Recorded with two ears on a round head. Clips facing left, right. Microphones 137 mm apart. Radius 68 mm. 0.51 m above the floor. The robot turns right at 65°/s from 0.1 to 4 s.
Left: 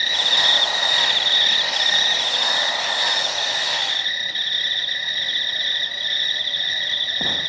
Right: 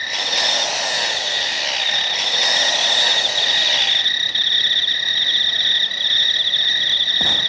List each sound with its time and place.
0.0 s an insect: 40° left, 1.7 m; by 7.5 s 65° right, 1.7 m